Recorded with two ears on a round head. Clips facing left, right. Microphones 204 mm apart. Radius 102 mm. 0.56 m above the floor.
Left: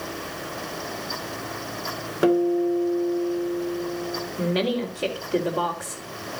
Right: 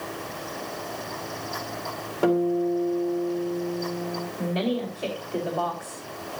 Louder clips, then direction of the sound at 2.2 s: Left 2 dB; 20° left (ahead or behind).